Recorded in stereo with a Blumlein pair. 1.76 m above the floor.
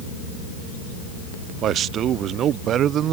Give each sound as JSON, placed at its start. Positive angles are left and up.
{"t": 1.6, "sound": "a man speaking", "azimuth_deg": -30}